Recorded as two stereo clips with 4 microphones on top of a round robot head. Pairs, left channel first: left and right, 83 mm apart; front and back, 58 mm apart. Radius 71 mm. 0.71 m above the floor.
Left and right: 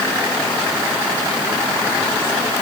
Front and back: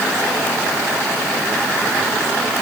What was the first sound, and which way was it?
Only background noise.